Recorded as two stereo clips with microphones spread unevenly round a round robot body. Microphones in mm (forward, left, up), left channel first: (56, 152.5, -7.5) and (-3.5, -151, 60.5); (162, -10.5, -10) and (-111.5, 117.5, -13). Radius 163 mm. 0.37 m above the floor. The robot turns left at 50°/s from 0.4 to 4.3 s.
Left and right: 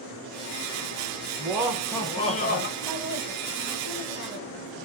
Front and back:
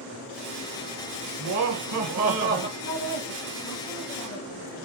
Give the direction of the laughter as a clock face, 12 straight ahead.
6 o'clock.